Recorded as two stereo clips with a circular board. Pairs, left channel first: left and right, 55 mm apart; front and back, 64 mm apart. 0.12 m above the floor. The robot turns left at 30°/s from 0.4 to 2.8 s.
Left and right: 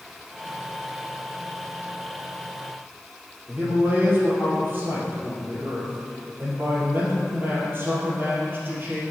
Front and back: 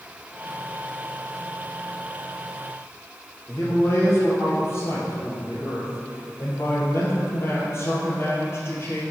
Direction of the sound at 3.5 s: 45° right.